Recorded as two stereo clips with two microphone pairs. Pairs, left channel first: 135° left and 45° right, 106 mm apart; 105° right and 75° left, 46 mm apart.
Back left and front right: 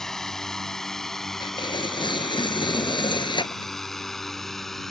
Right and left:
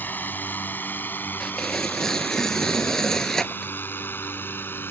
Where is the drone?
140° right; by 4.9 s 135° right.